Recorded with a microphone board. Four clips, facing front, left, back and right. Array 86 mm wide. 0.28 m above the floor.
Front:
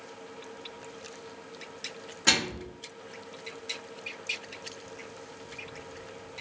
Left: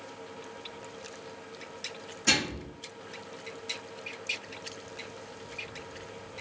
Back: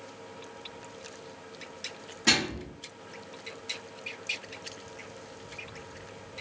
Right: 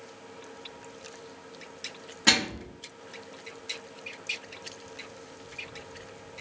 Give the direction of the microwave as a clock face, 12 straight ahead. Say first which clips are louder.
Right 3 dB, back 1 dB; 3 o'clock.